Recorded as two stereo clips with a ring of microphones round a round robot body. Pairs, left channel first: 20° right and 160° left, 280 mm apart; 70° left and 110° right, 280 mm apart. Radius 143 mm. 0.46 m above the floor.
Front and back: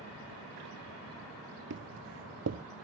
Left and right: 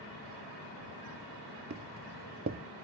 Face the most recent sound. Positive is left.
turn(degrees=-165)